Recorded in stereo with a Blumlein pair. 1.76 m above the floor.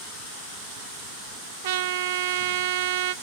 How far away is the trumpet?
About 0.8 m.